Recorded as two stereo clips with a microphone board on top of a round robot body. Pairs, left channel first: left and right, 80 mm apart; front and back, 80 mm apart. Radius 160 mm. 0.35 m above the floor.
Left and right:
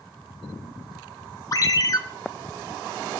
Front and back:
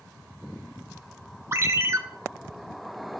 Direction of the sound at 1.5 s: 130° left.